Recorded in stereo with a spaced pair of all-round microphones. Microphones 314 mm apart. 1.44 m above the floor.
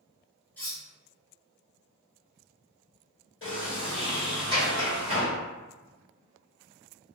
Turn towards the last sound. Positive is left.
turn(degrees=40)  # may be behind; listen again after turning